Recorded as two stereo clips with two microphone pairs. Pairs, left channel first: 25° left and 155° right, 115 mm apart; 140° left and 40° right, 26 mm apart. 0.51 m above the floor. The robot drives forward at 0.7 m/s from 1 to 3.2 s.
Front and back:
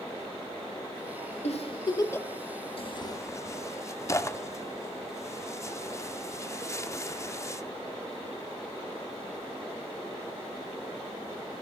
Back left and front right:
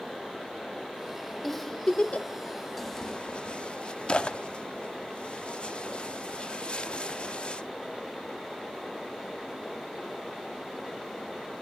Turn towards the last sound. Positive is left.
turn(degrees=85)